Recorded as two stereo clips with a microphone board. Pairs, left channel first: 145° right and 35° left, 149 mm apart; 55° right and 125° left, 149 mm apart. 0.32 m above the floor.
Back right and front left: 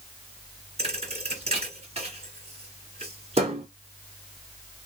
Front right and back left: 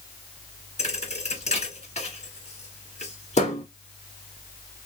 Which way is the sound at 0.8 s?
10° right.